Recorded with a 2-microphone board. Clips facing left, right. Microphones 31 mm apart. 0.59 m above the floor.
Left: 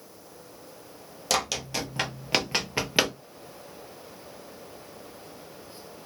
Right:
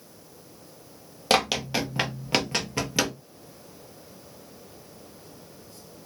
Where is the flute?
No flute in this recording.